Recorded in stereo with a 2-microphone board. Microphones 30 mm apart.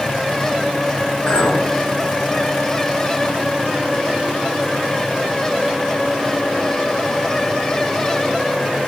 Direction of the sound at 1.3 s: 50° left (ahead or behind).